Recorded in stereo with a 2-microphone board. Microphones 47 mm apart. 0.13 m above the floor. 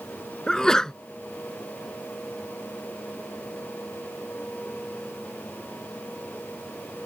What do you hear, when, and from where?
0.5 s a sneeze: 15° left (ahead or behind)